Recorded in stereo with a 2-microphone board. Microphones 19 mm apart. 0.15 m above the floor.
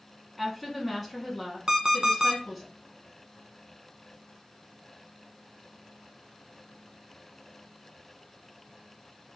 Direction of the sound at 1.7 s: 35° right (ahead or behind).